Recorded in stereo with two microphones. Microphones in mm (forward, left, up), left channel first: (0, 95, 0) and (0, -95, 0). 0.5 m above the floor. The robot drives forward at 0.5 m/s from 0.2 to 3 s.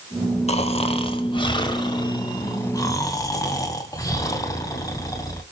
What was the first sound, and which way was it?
Snoring, 35° left (ahead or behind).